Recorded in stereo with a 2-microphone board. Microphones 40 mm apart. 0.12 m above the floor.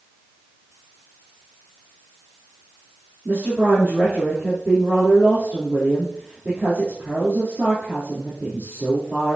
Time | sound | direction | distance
3.2 | a woman speaking | 45° right (ahead or behind) | 4 m